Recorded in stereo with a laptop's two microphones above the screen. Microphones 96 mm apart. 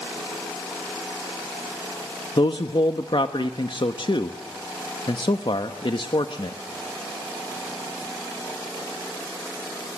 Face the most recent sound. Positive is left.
turn(degrees=65)  # may be behind; listen again after turning